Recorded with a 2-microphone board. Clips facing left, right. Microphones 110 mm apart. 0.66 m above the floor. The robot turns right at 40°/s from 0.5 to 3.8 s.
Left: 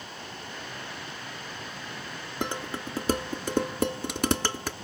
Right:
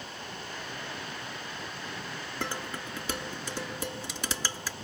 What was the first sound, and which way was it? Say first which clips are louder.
Dishes clattering: left 5 dB; 20° left (ahead or behind).